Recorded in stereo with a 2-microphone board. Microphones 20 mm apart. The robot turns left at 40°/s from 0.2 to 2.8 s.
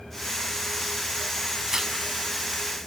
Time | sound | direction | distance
1.7 | tearing paper | 25° right (ahead or behind) | 6.5 m